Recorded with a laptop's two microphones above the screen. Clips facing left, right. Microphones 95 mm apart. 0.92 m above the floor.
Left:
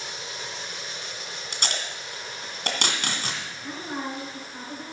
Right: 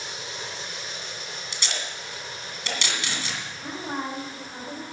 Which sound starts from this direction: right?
A woman speaking, at 3.6 s.